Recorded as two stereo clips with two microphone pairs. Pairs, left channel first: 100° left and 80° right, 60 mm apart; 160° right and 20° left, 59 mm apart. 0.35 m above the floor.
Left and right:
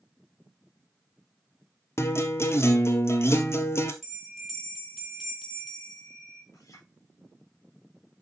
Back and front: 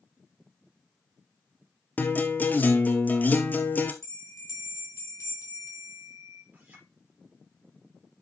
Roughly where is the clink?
Left.